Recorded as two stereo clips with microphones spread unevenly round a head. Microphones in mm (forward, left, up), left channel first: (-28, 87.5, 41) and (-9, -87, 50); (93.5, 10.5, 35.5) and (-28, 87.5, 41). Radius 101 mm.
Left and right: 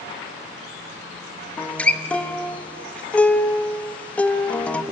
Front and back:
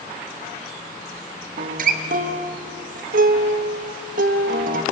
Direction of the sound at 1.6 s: Straight behind.